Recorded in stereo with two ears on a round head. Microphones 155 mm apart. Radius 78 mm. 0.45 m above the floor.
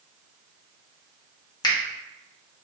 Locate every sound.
1.6 s a finger snap: 25° left (ahead or behind), 0.7 m